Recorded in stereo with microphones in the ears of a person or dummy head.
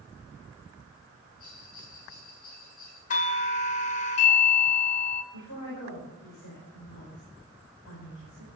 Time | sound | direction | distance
1.4 | a bell | 60° left (ahead or behind) | 7.5 m
3.1 | a doorbell | 40° left (ahead or behind) | 0.8 m
5.3 | a woman speaking | 75° left (ahead or behind) | 4.5 m